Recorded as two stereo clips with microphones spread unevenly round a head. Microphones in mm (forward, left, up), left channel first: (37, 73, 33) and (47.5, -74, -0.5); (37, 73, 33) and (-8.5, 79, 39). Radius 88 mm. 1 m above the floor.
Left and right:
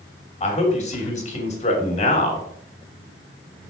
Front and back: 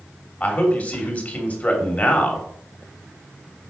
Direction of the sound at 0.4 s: 50° left.